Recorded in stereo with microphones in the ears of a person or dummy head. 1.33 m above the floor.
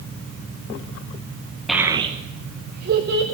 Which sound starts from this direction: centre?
A child speaking, at 1.7 s.